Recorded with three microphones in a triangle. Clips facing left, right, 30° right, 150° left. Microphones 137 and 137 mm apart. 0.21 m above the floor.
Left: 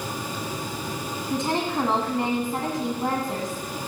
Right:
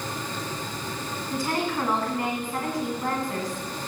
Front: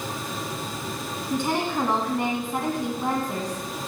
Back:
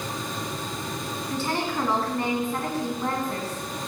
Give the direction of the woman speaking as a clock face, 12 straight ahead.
11 o'clock.